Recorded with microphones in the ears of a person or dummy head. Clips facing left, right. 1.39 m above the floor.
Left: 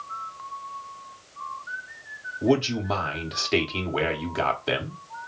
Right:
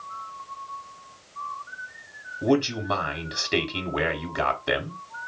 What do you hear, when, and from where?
2.4 s a man speaking: centre (ahead or behind), 0.6 m